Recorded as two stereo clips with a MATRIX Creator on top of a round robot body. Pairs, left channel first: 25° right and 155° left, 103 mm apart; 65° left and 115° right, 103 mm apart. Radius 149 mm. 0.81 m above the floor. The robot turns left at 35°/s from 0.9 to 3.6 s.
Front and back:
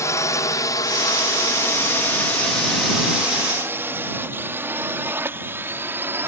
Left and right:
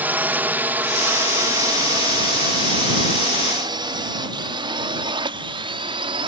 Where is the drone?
50° right; by 6.3 s 135° right.